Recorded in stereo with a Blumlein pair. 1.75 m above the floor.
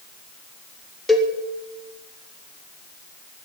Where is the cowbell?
5° left, 1.7 m.